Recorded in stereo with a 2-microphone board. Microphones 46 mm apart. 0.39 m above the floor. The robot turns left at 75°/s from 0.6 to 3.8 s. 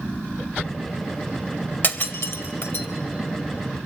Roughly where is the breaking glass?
Left.